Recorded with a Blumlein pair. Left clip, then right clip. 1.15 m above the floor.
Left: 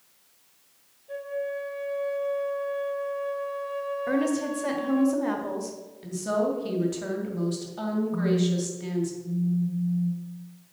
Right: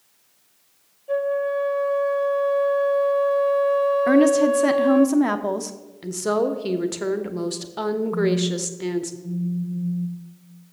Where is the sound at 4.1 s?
45° right, 0.8 m.